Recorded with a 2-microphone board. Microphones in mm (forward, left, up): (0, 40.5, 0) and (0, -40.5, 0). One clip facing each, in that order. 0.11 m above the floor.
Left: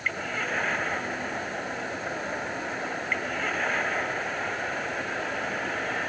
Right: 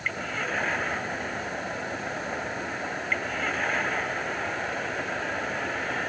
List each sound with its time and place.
Only background noise.